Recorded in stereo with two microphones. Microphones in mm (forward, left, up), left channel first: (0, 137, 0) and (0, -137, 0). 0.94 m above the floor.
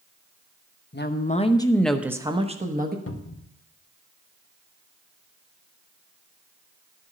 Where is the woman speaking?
40° left (ahead or behind), 1.0 m; by 3.0 s 35° right (ahead or behind), 1.3 m.